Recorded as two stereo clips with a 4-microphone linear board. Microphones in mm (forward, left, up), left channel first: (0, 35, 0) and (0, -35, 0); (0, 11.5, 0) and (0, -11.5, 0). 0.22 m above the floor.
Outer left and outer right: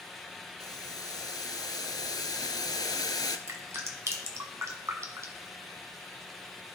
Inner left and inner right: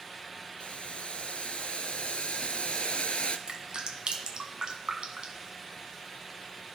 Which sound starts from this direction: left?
Boiling, at 0.6 s.